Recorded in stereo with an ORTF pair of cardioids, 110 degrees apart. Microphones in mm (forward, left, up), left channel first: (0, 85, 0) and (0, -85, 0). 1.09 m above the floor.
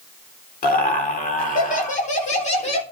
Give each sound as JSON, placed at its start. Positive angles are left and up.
{"t": 0.6, "sound": "laughter", "azimuth_deg": 60, "distance_m": 3.0}